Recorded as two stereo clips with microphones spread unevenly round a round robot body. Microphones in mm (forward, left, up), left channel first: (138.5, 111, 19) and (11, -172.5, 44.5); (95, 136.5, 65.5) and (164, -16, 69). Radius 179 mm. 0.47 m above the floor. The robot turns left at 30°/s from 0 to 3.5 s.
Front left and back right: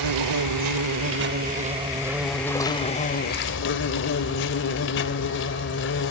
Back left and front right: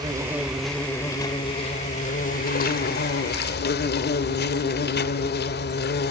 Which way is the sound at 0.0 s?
135° right.